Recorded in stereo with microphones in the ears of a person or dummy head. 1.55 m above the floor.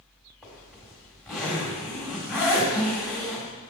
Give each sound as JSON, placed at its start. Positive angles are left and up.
{"t": 0.4, "sound": "a zipper", "side_deg": 5, "distance_m": 1.5}